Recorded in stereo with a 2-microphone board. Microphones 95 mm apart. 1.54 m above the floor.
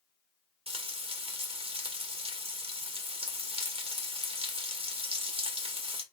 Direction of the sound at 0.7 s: 85° right.